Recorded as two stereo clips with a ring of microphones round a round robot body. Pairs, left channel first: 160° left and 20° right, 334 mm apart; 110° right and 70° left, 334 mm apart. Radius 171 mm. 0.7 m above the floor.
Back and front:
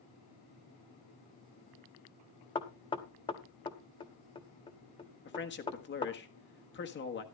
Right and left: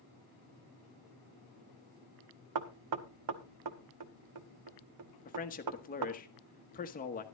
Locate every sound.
2.5 s knocking: 85° left, 1.0 m
5.2 s a man speaking: 165° right, 1.4 m